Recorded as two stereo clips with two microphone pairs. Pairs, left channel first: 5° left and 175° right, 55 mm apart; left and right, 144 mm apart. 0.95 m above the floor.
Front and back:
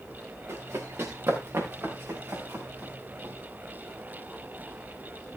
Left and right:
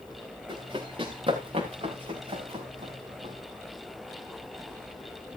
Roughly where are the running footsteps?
Behind right.